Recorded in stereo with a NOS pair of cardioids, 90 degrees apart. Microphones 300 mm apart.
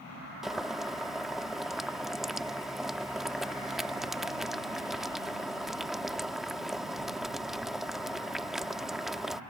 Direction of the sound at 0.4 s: Straight ahead.